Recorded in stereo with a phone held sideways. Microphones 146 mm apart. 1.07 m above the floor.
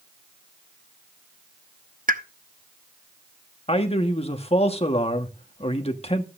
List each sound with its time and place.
2.1 s a pop: 70° right (ahead or behind), 0.7 m
3.7 s a man speaking: 45° left (ahead or behind), 1.3 m